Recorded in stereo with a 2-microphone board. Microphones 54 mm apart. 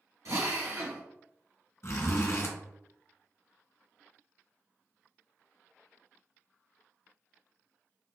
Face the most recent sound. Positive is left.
turn(degrees=55)  # may be behind; listen again after turning